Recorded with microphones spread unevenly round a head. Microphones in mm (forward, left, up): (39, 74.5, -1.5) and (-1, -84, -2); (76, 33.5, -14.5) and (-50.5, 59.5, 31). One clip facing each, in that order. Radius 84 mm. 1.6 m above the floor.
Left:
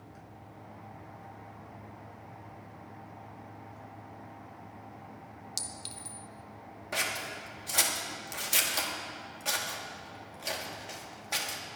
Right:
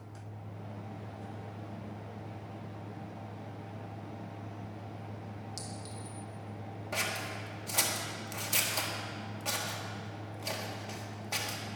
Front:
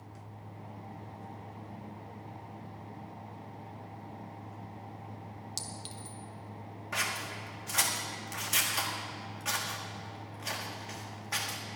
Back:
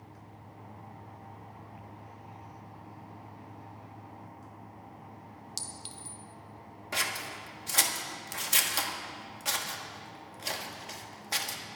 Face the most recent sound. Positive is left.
turn(degrees=160)